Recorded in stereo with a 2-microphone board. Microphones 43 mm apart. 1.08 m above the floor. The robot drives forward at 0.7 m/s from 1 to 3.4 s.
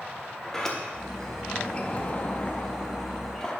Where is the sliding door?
15° left (ahead or behind), 0.9 m.